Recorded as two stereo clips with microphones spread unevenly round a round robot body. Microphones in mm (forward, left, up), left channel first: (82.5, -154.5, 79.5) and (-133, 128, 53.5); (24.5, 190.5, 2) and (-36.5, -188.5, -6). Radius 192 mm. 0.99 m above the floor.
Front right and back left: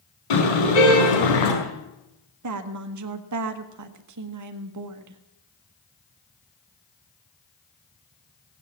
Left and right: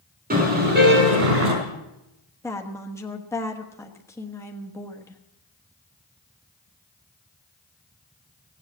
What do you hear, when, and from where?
0.3 s a car horn: 30° right, 5 m; by 1.5 s 40° right, 4.5 m
2.4 s a woman speaking: 165° left, 1.2 m